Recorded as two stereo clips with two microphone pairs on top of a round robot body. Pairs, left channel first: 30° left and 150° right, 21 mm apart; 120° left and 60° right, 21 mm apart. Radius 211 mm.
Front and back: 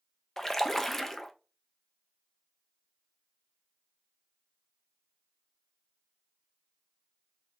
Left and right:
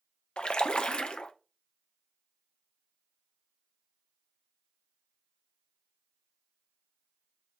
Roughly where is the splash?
Left.